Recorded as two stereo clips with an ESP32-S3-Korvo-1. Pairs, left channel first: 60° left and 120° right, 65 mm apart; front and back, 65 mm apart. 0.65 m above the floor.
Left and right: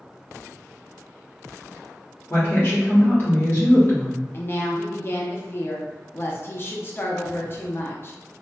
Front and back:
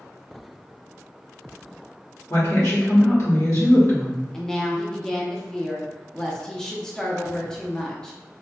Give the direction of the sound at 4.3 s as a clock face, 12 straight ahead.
10 o'clock.